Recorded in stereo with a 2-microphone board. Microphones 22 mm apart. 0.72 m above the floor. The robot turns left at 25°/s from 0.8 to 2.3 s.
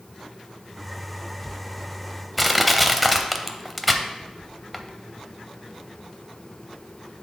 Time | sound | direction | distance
2.4 | crushing | centre (ahead or behind) | 0.5 m